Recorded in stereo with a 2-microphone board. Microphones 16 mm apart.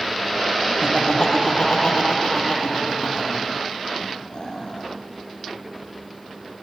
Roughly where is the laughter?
Left.